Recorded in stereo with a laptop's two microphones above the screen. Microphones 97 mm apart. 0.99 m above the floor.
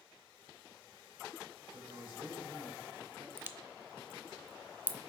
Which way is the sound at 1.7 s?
60° right (ahead or behind).